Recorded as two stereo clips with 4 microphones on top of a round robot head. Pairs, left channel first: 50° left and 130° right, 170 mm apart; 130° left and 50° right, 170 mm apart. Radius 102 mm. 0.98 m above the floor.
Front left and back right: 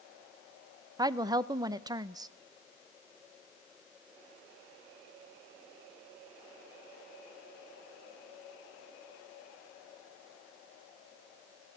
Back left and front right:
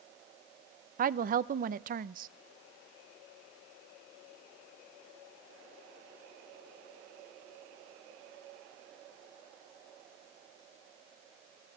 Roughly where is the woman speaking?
Right.